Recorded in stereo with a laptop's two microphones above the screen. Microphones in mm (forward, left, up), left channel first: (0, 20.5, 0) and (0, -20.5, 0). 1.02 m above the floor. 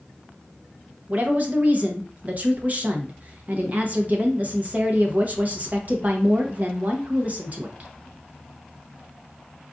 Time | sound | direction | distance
1.1 | a woman speaking | 40° right (ahead or behind) | 0.7 m